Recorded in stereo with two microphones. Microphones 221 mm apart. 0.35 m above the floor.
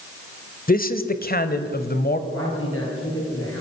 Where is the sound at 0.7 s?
40° left (ahead or behind), 1.1 m; by 2.2 s 45° left (ahead or behind), 1.7 m.